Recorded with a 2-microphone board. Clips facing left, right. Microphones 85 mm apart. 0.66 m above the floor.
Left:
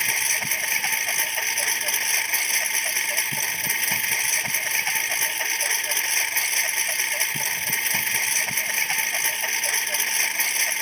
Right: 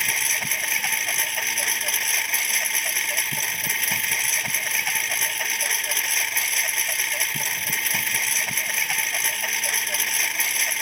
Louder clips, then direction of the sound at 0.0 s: Even; centre (ahead or behind).